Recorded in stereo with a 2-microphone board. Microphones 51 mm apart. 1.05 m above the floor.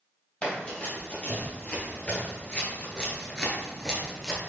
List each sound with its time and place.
0.4 s running footsteps: 20° left (ahead or behind), 1.8 m; by 4.4 s 5° left (ahead or behind), 1.1 m